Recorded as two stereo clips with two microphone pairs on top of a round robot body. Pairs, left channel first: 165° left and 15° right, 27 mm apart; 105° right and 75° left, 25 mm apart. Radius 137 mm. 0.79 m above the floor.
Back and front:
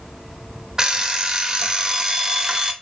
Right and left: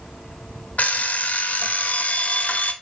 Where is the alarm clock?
80° right, 0.7 m.